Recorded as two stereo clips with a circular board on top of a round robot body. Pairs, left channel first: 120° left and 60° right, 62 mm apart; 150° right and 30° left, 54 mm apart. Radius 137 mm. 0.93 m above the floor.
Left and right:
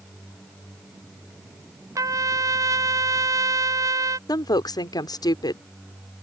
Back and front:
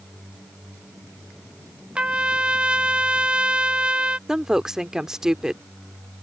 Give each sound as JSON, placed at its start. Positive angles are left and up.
{"t": 1.9, "sound": "a trumpet", "azimuth_deg": -40}
{"t": 4.3, "sound": "a woman speaking", "azimuth_deg": 110}